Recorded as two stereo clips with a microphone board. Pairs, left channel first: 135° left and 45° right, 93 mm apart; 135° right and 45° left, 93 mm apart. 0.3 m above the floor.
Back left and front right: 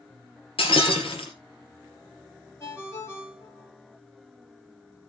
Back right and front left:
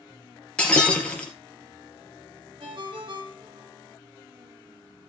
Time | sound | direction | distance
0.6 | breaking glass | 145° left | 3.5 m
2.6 | a ringtone | 75° left | 5 m